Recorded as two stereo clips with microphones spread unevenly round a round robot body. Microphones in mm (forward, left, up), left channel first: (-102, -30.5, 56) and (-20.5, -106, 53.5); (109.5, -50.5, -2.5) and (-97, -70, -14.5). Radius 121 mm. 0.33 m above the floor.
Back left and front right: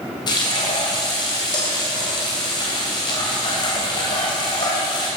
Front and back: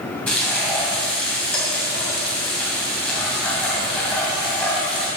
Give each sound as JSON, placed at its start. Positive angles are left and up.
{"t": 0.3, "sound": "frying", "azimuth_deg": 90, "distance_m": 2.5}